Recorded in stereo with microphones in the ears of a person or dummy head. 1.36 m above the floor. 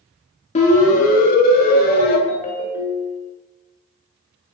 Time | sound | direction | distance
0.6 | a siren | 40° left (ahead or behind) | 4 m
2.3 | a ringtone | 35° left (ahead or behind) | 2.5 m